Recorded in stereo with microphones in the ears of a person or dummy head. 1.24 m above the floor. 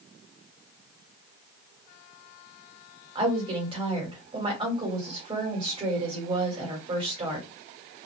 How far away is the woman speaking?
About 2 m.